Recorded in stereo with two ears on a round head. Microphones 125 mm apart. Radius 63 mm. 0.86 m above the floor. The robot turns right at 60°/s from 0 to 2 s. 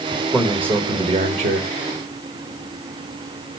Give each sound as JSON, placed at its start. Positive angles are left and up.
{"t": 0.1, "sound": "a man speaking", "azimuth_deg": 165, "distance_m": 1.9}